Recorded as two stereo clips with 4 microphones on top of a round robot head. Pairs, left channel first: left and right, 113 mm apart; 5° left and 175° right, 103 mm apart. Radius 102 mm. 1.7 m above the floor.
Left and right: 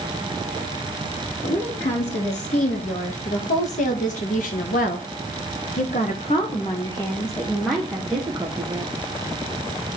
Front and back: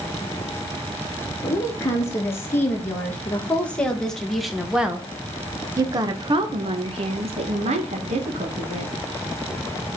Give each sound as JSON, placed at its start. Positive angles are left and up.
{"t": 1.4, "sound": "a woman speaking", "azimuth_deg": 70, "distance_m": 2.5}